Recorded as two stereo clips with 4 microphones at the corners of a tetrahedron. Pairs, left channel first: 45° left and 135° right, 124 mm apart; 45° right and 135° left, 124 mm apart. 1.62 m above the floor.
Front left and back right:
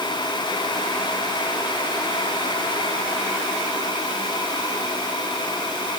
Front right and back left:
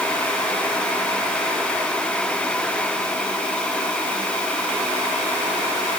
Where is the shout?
No shout in this recording.